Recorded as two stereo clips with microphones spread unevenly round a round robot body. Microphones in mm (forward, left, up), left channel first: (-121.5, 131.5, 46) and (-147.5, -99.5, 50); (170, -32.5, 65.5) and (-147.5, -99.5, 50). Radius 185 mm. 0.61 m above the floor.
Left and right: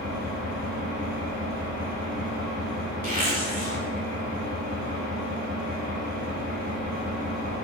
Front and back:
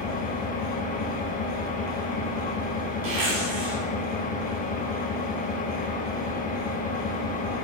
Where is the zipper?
150° right, 2.5 m.